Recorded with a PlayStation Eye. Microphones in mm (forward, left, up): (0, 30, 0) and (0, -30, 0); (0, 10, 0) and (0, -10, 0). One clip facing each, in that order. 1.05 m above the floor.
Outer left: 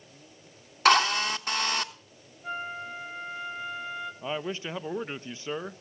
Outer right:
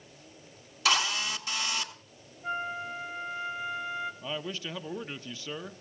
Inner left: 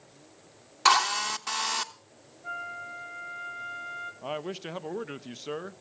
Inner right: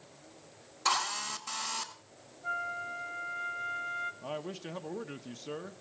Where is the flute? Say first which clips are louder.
Outer right 1 dB, inner right 1 dB; 15° right (ahead or behind), 1.9 m.